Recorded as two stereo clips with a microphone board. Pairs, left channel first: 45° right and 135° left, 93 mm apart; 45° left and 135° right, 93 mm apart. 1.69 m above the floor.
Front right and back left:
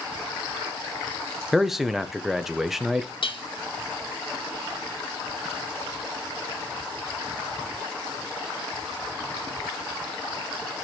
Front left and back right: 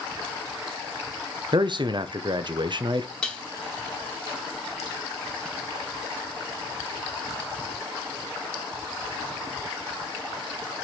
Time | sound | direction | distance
1.5 | a man speaking | 140° right | 0.8 m
3.2 | dishes clattering | 35° right | 1.8 m